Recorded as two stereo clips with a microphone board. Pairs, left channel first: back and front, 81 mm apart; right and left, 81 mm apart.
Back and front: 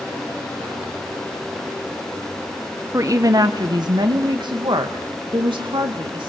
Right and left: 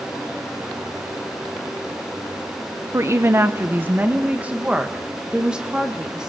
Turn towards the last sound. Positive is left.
turn(degrees=10)